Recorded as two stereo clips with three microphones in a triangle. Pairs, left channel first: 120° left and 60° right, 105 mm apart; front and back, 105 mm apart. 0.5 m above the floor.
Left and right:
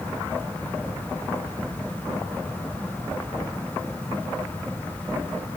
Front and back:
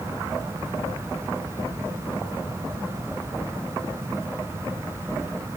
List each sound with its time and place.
Only background noise.